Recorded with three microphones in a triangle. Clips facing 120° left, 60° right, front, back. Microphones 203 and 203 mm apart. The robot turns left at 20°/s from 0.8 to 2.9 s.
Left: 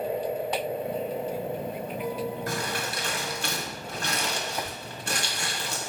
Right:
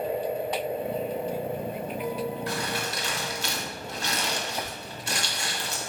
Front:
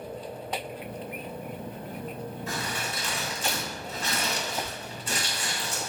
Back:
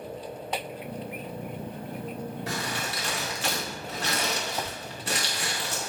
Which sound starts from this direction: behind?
Crumpling, at 2.5 s.